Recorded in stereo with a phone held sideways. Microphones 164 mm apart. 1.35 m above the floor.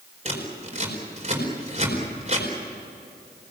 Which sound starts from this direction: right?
Scissors, at 0.2 s.